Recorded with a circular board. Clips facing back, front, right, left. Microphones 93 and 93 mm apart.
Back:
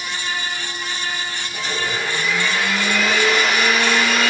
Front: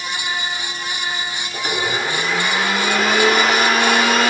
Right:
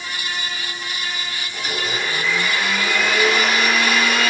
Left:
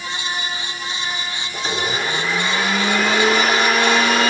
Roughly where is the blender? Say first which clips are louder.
Front 3 dB, left 3 dB; ahead left.